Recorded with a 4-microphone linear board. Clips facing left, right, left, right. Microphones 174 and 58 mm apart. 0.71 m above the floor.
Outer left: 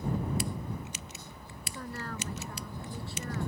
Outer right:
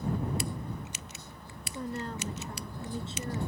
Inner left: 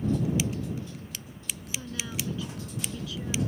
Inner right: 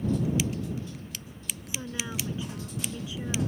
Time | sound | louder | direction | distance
1.7 | a woman speaking | outer right 4 dB, inner right 2 dB | 20° right (ahead or behind) | ?